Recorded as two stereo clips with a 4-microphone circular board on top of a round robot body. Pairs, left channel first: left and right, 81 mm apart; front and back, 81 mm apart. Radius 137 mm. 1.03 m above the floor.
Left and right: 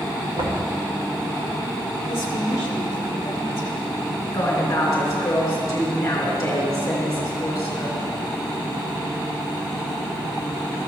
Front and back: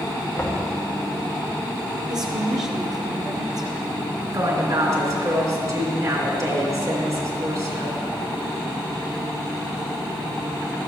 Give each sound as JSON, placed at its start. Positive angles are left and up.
{"t": 0.4, "sound": "knocking", "azimuth_deg": -80, "distance_m": 1.6}
{"t": 2.1, "sound": "a woman speaking", "azimuth_deg": 145, "distance_m": 1.3}
{"t": 4.3, "sound": "a woman speaking", "azimuth_deg": 145, "distance_m": 3.0}